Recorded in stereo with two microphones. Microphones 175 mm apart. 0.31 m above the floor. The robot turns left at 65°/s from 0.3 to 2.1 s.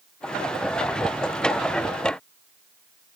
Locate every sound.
Only background noise.